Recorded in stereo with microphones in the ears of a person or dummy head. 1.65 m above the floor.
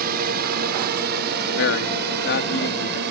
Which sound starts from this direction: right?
A drone, at 0.0 s.